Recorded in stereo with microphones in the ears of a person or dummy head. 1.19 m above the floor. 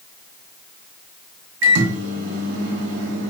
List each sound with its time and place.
1.6 s a microwave: 70° right (ahead or behind), 0.9 m